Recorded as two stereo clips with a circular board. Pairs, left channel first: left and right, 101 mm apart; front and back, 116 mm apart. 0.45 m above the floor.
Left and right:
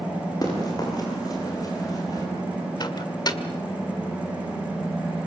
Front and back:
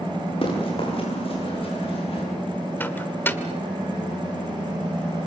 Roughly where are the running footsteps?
Ahead left.